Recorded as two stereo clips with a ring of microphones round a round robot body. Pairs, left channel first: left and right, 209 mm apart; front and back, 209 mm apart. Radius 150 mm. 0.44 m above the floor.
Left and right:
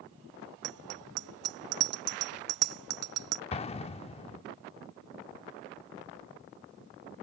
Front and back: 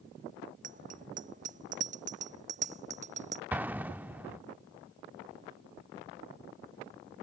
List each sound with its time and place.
0.6 s a bicycle bell: 115° right; by 3.4 s 110° right
3.5 s an explosion: 105° left